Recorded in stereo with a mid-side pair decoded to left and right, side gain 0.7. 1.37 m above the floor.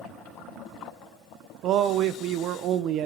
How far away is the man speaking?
About 0.7 m.